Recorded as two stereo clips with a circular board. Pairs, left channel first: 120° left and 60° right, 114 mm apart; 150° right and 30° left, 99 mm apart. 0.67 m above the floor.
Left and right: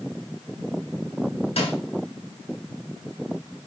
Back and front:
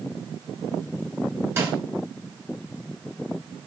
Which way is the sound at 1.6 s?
90° left.